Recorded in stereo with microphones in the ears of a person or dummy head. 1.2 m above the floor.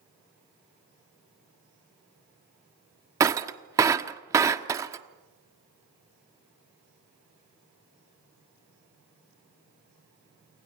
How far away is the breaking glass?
About 1.1 m.